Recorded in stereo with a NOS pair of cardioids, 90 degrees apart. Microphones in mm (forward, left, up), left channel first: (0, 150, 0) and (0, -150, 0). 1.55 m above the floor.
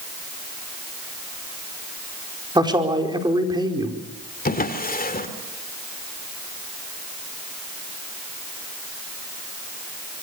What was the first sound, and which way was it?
A man speaking, 15° right.